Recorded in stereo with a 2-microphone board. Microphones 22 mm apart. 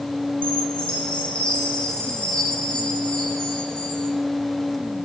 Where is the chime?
75° left (ahead or behind), 6.5 m.